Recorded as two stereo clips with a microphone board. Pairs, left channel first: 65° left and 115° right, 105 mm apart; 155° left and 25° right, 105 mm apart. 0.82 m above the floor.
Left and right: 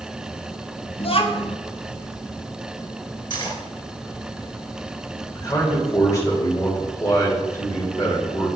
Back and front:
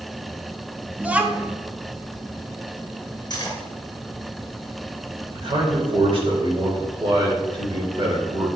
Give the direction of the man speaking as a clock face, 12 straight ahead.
12 o'clock.